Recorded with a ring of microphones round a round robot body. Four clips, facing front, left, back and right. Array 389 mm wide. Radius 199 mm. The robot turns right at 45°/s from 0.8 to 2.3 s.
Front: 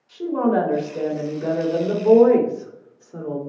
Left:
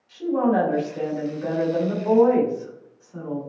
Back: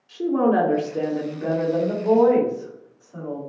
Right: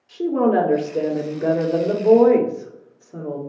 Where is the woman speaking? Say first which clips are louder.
Right 3 dB, back 1 dB; 120° right, 2 m; by 3.4 s 55° right, 2 m.